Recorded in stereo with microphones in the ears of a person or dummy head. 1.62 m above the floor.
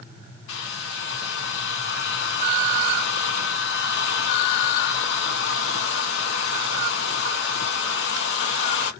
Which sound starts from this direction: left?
A hair dryer, at 0.5 s.